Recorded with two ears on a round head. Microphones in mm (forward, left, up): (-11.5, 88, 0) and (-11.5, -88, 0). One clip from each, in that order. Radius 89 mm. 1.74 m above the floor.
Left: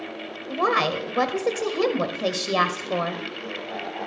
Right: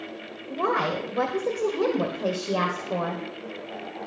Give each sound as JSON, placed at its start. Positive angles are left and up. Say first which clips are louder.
{"t": 0.5, "sound": "a woman speaking", "louder": "left 3 dB", "side_deg": 75, "distance_m": 1.1}